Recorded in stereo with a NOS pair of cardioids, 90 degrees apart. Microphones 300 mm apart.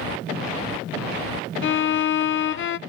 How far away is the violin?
About 0.6 m.